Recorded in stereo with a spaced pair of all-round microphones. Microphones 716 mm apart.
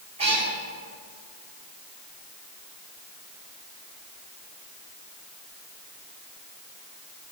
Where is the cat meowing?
60° right (ahead or behind), 4.5 m.